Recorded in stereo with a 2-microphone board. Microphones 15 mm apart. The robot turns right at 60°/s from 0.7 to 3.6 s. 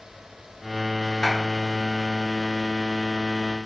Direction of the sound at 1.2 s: 80° left.